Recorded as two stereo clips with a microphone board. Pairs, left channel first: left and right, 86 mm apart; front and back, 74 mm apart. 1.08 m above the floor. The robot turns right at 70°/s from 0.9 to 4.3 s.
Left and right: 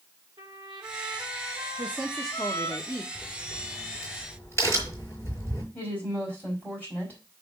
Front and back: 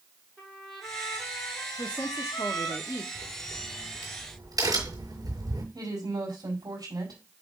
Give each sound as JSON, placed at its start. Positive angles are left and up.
{"t": 0.4, "sound": "a trumpet", "azimuth_deg": -80, "distance_m": 2.0}
{"t": 1.8, "sound": "a woman speaking", "azimuth_deg": -35, "distance_m": 1.2}
{"t": 3.1, "sound": "a crack", "azimuth_deg": 70, "distance_m": 5.0}
{"t": 5.7, "sound": "a woman speaking", "azimuth_deg": 160, "distance_m": 5.0}